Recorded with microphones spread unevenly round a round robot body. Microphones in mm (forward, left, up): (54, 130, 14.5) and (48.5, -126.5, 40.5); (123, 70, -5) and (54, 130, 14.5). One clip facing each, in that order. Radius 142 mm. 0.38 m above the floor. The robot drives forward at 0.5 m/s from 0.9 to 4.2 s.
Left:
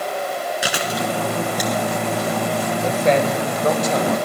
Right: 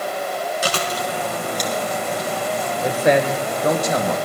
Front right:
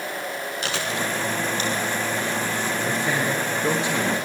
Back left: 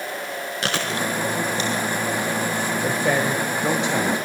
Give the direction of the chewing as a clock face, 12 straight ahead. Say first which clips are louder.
Left 1 dB, back left 3 dB; 6 o'clock.